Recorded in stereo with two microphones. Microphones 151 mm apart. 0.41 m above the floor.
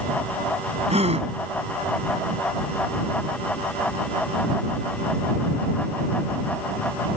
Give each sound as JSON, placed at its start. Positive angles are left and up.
{"t": 0.9, "sound": "a gasp", "side_deg": -45}